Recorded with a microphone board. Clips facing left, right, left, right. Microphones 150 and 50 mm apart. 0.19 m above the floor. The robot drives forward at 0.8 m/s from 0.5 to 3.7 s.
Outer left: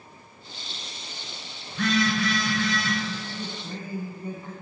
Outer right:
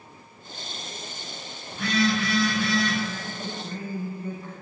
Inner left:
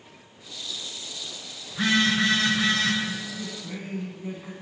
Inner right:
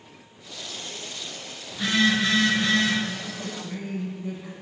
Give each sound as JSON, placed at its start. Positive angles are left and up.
{"t": 1.7, "sound": "a phone buzzing", "side_deg": 75, "distance_m": 3.0}
{"t": 3.1, "sound": "a man speaking", "side_deg": 20, "distance_m": 1.1}